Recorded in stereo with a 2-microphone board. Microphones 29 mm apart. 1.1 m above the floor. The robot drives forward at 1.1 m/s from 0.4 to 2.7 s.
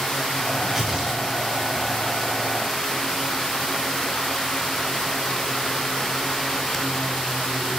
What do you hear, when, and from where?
0.6 s tearing paper: 15° right (ahead or behind), 6 m